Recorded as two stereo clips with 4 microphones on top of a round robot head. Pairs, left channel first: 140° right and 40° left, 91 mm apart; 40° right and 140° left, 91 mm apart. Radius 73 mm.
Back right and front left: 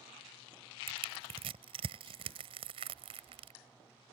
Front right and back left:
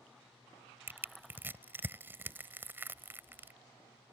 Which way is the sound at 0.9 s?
70° left.